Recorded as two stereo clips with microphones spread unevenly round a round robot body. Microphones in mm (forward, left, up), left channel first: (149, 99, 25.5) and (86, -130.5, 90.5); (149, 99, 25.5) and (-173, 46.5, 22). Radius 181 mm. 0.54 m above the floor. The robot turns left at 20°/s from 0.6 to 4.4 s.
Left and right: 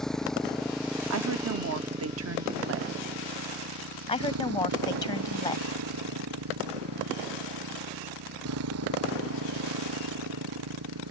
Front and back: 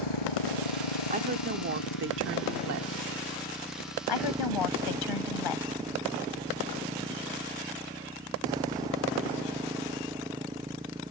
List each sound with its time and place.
0.0 s a motorcycle: 15° right; by 11.1 s 90° right
1.1 s a woman speaking: 110° right; by 2.9 s 145° right
4.1 s a woman speaking: 10° left; by 5.7 s 5° left